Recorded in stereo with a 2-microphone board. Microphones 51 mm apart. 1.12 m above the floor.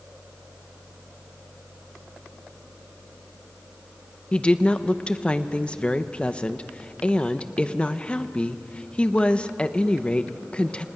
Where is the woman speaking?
20° left (ahead or behind), 1.0 m.